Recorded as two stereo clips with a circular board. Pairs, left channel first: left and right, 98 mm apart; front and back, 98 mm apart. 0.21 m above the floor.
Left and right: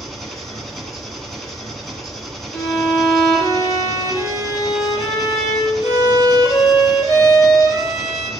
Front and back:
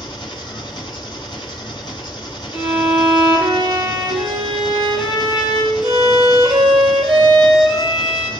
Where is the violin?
95° left, 5 m.